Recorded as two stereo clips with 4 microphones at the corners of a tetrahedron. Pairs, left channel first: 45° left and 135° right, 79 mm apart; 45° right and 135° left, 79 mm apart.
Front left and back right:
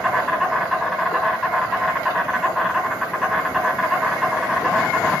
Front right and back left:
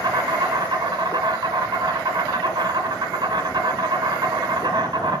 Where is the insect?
135° left, 2.5 m.